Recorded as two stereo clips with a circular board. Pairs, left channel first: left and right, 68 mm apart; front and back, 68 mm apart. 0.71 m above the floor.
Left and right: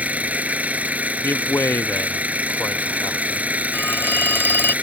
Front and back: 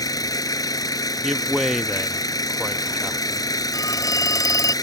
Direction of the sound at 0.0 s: 20° right.